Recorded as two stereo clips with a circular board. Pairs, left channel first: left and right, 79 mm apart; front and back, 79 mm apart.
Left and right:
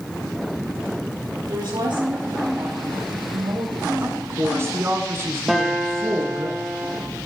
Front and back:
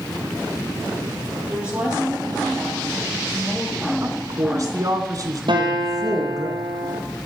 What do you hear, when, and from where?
1.5 s a woman speaking: 105° right, 6 m; by 3.9 s 90° right, 8 m
4.0 s a woman speaking: 145° right, 2.5 m
5.5 s a guitar: 175° right, 3 m